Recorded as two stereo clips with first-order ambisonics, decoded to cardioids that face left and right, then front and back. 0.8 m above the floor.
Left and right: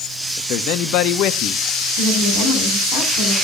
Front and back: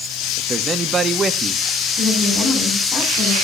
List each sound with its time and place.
0.4 s a man speaking: 110° left, 0.9 m
2.0 s a woman speaking: 100° left, 7 m